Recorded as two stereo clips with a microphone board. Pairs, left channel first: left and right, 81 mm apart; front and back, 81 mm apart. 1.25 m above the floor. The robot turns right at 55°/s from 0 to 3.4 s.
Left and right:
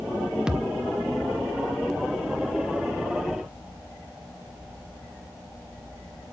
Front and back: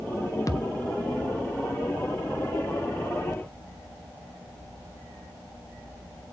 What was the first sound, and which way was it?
A thud, 10° right.